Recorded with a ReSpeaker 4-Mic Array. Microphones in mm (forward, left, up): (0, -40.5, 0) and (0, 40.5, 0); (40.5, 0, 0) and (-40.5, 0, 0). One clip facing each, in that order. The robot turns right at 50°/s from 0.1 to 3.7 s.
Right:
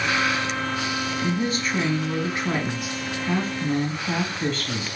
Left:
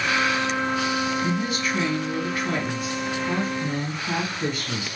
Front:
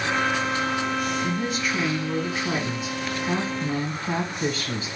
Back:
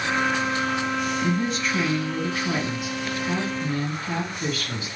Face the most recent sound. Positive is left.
turn(degrees=25)